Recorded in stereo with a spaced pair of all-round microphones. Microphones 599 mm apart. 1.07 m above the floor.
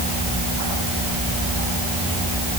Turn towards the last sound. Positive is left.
No sound to turn to.